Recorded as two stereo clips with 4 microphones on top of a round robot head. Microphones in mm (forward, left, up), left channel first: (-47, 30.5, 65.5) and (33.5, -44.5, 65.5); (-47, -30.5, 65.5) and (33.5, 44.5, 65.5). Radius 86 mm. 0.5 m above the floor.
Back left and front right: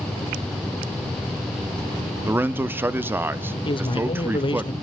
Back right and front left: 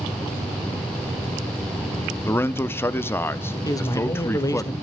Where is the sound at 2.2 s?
95° right, 0.7 m.